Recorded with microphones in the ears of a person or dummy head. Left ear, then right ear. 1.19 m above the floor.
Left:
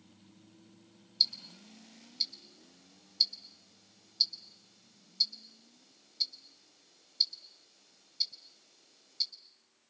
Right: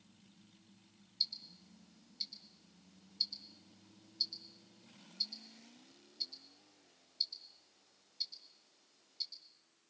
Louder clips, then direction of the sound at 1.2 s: Left 8 dB; 20° left (ahead or behind).